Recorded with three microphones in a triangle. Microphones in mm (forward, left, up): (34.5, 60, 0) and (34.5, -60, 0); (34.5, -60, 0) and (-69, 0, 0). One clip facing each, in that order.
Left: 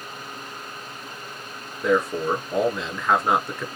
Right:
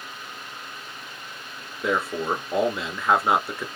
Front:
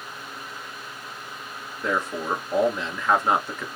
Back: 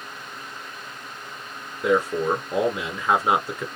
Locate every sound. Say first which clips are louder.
1.8 s a man speaking: left 4 dB, back 6 dB; 165° right, 1.2 m